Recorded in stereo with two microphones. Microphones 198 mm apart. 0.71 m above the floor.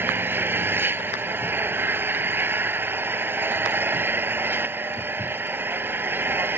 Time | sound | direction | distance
0.0 | an engine running | 10° right (ahead or behind) | ?